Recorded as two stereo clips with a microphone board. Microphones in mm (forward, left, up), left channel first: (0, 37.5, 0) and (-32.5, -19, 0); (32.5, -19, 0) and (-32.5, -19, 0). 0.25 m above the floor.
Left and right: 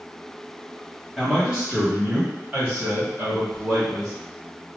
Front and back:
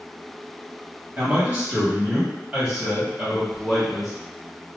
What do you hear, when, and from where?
1.2 s a man speaking: 160° left, 1.5 m; by 4.1 s 95° right, 1.8 m